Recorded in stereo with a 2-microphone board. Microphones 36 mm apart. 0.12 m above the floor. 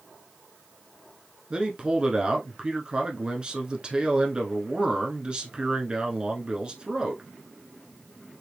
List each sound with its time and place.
1.5 s a man speaking: 25° right (ahead or behind), 1.2 m